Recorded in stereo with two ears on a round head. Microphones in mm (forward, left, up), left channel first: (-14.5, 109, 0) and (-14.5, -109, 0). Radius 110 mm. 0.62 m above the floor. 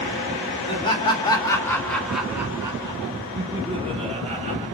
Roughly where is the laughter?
Left.